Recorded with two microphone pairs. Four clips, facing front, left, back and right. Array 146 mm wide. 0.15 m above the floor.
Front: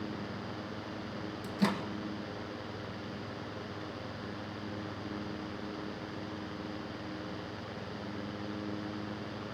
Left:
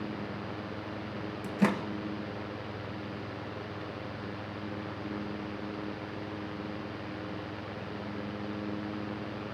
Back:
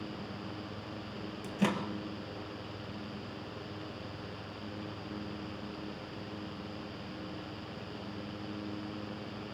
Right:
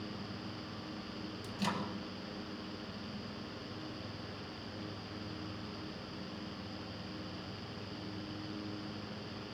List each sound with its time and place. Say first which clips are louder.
1.4 s a microwave: left 9 dB, even; 105° left, 1.9 m